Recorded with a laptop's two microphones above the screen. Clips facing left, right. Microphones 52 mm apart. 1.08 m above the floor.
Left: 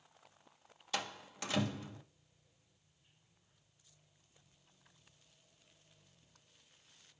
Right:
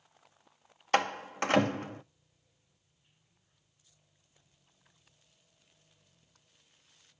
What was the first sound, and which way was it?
A door slam, 55° right (ahead or behind).